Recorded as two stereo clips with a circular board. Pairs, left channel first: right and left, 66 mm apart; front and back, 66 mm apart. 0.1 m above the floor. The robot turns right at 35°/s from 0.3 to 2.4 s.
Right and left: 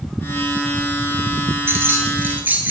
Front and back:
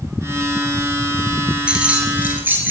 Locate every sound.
1.7 s keys jangling: 110° left, 1.3 m; by 2.7 s 135° left, 1.3 m